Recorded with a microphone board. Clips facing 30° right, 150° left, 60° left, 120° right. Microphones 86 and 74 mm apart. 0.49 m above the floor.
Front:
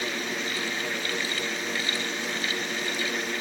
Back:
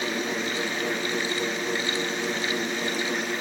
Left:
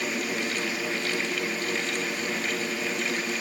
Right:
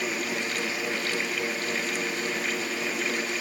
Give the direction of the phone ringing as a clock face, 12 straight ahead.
I don't hear a phone ringing.